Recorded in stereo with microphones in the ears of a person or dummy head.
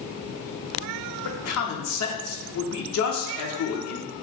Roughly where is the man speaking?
Left.